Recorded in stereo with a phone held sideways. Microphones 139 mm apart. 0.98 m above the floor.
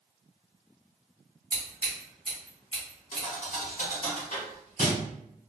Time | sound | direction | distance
1.5 | scissors | 35° right (ahead or behind) | 1.3 m
3.1 | a thud | 75° left (ahead or behind) | 1.4 m